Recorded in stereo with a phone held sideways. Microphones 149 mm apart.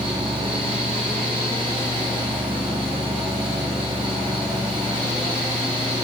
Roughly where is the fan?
Right.